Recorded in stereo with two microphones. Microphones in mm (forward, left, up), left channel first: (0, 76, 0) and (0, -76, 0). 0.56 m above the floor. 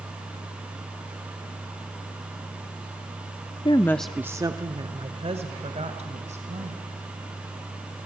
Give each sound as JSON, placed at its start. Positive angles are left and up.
{"t": 3.6, "sound": "a woman speaking", "side_deg": 35, "distance_m": 0.7}